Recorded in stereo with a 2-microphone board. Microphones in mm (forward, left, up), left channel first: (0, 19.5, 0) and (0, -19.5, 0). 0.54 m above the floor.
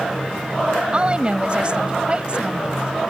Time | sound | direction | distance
0.9 | a woman speaking | 30° right (ahead or behind) | ?